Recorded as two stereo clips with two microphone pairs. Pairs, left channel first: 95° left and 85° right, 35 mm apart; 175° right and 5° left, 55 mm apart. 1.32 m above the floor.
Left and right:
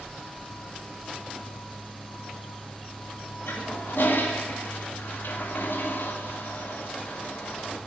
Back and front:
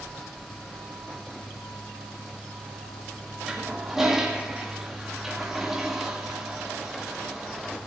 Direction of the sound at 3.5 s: 90° left.